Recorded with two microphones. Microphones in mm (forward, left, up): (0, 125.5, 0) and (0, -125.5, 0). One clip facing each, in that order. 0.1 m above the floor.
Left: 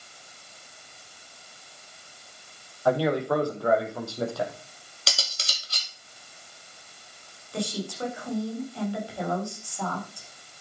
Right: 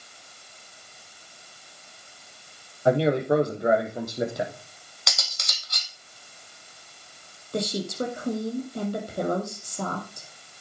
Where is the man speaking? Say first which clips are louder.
Right 3 dB; 25° right (ahead or behind), 3 m; by 4.5 s 20° right (ahead or behind), 4 m.